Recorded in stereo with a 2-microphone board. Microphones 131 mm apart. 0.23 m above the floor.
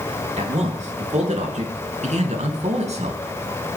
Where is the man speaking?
65° right (ahead or behind), 4.5 m; by 3.2 s 60° right (ahead or behind), 3 m.